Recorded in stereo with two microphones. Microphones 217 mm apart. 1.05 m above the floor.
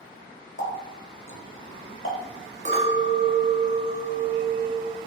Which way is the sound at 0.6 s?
65° left (ahead or behind).